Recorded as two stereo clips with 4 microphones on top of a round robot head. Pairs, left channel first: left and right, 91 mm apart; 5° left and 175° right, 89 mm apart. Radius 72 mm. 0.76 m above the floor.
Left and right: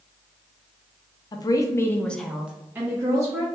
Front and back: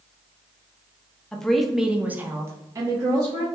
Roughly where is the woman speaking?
Left.